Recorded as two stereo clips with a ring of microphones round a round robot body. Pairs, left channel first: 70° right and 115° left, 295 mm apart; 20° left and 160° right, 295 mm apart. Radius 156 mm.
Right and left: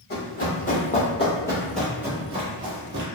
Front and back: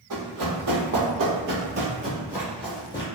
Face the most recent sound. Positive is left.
turn(degrees=85)